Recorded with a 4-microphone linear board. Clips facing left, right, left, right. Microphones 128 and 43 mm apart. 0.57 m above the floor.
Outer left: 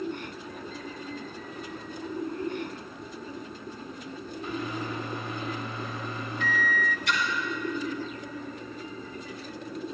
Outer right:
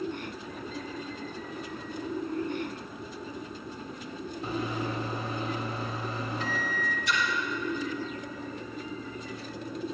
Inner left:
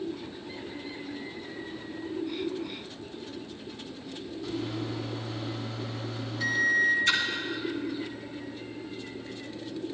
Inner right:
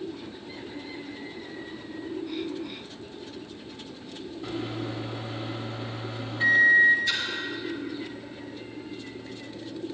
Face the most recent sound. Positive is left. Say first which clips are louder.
# outer right 1 dB, inner left 3 dB
turn(degrees=75)  # may be behind; listen again after turning